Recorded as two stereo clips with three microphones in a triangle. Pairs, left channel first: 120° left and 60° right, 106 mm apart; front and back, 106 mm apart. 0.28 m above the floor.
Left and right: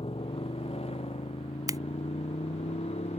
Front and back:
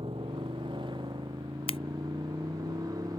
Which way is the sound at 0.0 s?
145° left.